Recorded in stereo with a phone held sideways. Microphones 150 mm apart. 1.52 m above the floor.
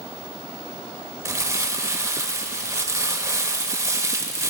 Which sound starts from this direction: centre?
Crumpling, at 1.2 s.